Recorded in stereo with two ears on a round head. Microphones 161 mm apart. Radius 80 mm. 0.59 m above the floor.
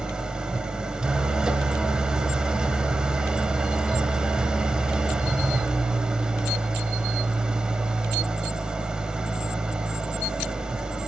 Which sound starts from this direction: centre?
An engine running, at 0.0 s.